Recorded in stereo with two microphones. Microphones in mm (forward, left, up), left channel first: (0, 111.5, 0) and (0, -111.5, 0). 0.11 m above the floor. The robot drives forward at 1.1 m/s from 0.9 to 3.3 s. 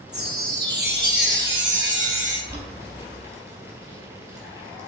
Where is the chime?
50° right (ahead or behind), 2.5 m; by 2.4 s 60° right (ahead or behind), 2.5 m.